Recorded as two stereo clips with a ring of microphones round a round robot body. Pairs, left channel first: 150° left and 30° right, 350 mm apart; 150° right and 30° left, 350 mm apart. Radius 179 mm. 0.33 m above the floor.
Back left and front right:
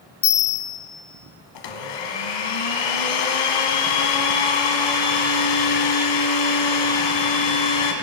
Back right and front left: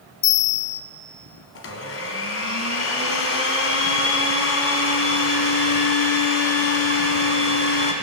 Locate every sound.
0.2 s a bell: 175° right, 0.9 m
1.6 s a blender: 155° left, 1.4 m